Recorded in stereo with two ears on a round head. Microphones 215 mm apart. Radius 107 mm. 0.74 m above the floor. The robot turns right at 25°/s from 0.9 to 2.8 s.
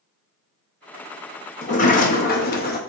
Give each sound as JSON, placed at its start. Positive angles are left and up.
{"t": 1.6, "sound": "a sliding door", "side_deg": 30, "distance_m": 0.6}